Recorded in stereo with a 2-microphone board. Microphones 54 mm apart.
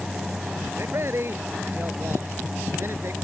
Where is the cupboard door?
I don't hear a cupboard door.